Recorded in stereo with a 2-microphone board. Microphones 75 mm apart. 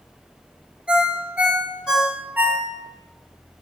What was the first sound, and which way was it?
A ringtone, 15° right (ahead or behind).